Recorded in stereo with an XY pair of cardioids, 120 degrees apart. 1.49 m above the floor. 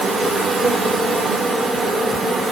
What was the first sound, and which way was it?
An insect, 25° right.